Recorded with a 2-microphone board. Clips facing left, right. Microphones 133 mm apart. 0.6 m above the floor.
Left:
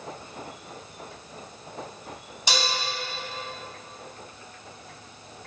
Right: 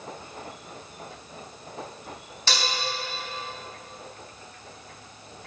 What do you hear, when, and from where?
2.5 s dishes clattering: 15° left (ahead or behind), 3.5 m